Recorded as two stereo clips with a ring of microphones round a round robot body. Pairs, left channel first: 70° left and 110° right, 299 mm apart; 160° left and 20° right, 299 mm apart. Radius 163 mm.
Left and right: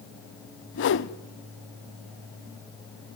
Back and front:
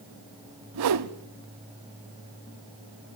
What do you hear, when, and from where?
0.7 s a whoosh: 15° left, 0.7 m